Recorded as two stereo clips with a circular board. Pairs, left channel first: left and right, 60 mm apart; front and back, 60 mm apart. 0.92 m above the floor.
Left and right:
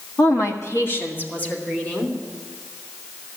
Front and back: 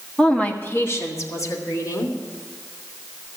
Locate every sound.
0.2 s a woman speaking: 80° left, 1.3 m; by 2.2 s 20° left, 3 m